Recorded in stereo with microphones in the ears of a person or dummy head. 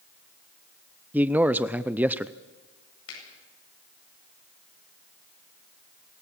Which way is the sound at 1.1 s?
10° right (ahead or behind).